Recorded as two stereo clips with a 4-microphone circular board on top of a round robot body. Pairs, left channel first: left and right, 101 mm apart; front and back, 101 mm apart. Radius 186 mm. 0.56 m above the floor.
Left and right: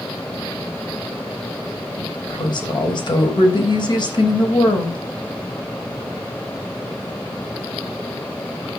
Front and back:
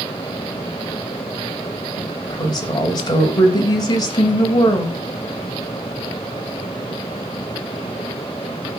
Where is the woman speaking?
50° left, 4 m.